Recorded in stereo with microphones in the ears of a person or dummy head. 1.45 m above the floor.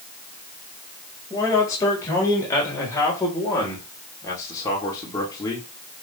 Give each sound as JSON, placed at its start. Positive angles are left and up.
{"t": 1.3, "sound": "a man speaking", "side_deg": 15, "distance_m": 5.5}